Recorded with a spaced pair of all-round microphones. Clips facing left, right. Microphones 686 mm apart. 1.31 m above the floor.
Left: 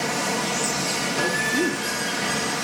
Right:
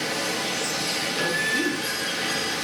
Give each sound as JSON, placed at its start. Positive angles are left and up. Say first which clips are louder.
{"t": 0.0, "sound": "running water", "louder": "left 3 dB", "side_deg": 85, "distance_m": 1.9}
{"t": 1.2, "sound": "a woman speaking", "louder": "left 3 dB", "side_deg": 80, "distance_m": 3.5}